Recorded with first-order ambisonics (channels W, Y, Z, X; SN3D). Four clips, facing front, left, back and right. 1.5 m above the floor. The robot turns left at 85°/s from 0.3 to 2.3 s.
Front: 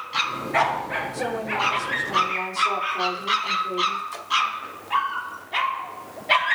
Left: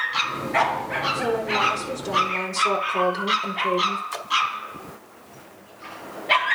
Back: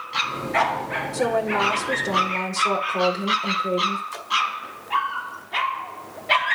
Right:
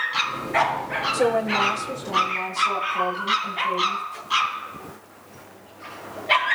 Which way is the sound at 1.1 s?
125° right.